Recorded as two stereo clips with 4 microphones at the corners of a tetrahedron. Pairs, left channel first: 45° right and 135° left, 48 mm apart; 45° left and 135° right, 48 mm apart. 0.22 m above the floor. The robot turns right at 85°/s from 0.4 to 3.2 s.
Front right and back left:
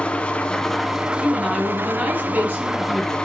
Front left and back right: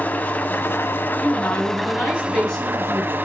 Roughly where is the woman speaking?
Ahead.